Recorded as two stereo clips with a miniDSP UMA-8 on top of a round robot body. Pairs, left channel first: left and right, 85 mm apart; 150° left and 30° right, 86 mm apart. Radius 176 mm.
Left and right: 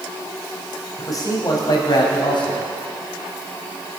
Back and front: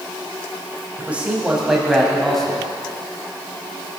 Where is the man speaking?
45° left, 3 m; by 2.7 s 65° left, 4 m.